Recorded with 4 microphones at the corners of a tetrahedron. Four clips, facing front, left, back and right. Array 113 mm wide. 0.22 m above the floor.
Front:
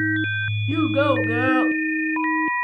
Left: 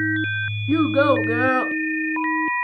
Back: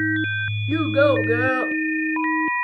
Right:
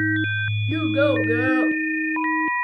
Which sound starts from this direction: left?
A child speaking, at 0.7 s.